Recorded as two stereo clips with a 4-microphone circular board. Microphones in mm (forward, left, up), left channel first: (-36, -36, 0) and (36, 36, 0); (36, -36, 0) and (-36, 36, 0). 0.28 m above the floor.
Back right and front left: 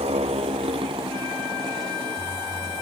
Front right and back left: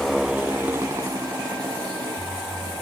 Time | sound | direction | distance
0.0 | a motorcycle | 45° left | ?